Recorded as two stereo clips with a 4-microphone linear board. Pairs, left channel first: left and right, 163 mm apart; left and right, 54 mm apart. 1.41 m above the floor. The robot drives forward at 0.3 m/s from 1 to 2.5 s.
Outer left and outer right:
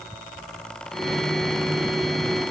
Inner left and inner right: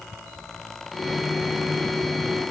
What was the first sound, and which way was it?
Only background noise.